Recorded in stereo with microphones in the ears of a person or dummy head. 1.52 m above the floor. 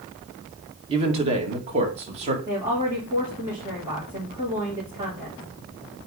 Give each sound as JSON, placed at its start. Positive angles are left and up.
{"t": 0.9, "sound": "a man speaking", "side_deg": -30, "distance_m": 1.5}
{"t": 2.5, "sound": "a woman speaking", "side_deg": -20, "distance_m": 2.5}